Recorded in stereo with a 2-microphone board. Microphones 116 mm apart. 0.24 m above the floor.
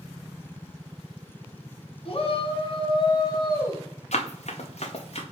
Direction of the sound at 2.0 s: 55° left (ahead or behind).